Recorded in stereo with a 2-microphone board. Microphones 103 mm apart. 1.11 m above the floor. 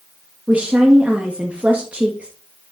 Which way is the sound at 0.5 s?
15° right (ahead or behind).